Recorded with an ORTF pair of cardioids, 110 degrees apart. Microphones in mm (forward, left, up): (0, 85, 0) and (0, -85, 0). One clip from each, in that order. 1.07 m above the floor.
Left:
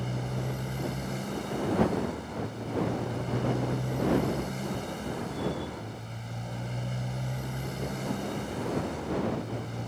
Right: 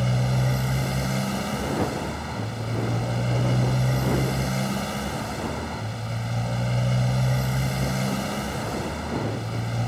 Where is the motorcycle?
60° right.